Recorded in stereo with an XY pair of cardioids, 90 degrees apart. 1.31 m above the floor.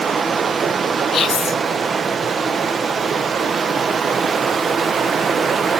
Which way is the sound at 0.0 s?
50° right.